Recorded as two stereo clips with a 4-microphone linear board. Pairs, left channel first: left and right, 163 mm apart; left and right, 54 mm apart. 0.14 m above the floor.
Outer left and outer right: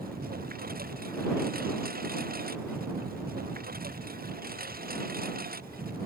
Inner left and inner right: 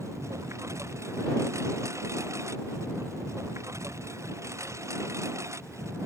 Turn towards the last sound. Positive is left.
turn(degrees=-60)  # may be behind; listen again after turning